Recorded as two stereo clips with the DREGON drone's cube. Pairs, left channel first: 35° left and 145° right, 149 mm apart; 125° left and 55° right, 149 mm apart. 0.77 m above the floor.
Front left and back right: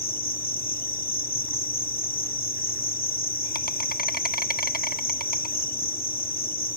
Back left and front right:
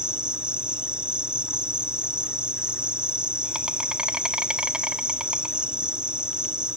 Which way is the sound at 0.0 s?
30° left.